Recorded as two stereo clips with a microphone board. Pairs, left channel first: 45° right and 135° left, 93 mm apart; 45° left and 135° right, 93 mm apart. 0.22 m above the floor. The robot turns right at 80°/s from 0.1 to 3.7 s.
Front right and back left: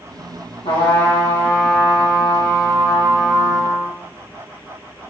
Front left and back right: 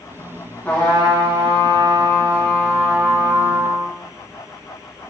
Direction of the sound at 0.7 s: 30° right.